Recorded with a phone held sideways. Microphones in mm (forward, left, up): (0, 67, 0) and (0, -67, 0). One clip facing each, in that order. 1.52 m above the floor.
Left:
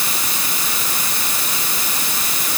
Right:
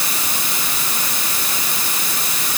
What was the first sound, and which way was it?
Only background noise.